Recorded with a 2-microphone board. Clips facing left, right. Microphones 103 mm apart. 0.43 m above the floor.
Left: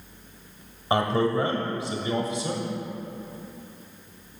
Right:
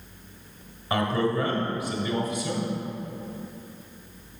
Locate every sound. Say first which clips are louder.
0.9 s a man speaking: left 2 dB; 30° left (ahead or behind), 1.4 m